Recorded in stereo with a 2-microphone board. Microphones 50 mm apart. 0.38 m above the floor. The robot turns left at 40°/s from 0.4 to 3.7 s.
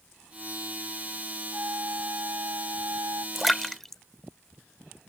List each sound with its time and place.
1.5 s a flute: 40° right; by 3.2 s 110° right
3.4 s a splash: centre (ahead or behind); by 4.0 s 5° left (ahead or behind)